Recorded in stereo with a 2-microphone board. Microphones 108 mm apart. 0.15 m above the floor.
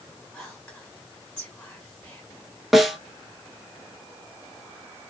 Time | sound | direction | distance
0.3 | whispering | 20° left (ahead or behind) | 1.4 m
2.7 | a snare drum | centre (ahead or behind) | 0.5 m